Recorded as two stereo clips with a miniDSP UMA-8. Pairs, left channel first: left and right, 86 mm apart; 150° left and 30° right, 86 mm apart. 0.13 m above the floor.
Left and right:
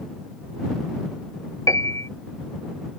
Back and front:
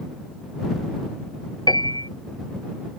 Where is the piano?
135° left.